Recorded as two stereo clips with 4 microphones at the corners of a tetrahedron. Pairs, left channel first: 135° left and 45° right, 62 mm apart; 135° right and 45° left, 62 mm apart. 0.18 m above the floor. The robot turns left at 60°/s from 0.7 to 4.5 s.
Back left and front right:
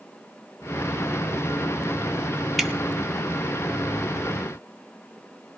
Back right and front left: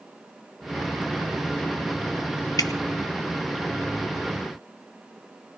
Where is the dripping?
135° right, 1.2 m; by 2.7 s 140° right, 1.2 m.